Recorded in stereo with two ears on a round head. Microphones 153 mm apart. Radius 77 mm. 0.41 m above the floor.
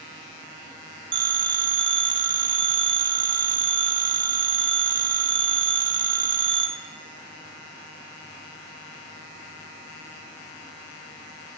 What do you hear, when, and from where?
1.1 s a phone ringing: 25° right (ahead or behind), 0.8 m